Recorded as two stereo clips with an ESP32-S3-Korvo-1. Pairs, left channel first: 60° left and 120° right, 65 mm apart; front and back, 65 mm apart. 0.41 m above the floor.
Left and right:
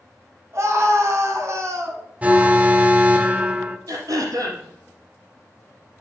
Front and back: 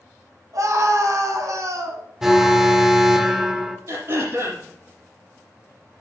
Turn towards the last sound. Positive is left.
turn(degrees=-140)